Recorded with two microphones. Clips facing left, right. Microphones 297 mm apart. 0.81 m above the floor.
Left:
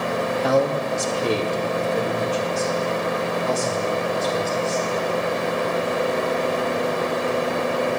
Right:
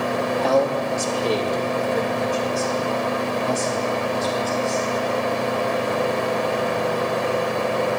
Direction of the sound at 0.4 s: 15° left (ahead or behind).